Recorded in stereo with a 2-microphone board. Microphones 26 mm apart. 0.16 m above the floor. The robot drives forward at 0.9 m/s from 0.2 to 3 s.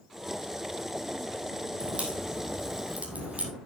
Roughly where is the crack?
Right.